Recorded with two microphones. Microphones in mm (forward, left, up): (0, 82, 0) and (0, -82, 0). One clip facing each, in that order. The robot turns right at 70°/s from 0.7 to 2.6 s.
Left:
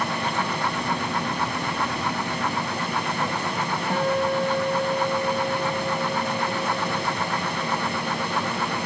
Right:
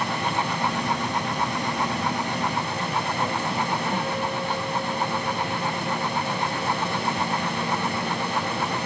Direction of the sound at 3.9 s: 80° left.